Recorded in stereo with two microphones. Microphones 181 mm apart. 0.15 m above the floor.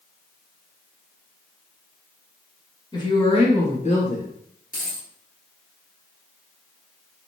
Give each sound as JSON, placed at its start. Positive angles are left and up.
{"t": 2.9, "sound": "a woman speaking", "side_deg": 25, "distance_m": 1.3}
{"t": 4.7, "sound": "a dropped coin", "side_deg": 55, "distance_m": 1.4}